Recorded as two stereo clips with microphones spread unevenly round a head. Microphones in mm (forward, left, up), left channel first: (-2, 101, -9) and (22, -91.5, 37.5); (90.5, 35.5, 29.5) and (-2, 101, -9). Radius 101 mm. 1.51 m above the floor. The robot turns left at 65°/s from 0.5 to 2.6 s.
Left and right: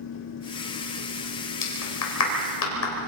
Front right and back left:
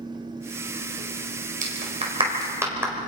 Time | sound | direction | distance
1.6 | a clap | 135° left | 4.5 m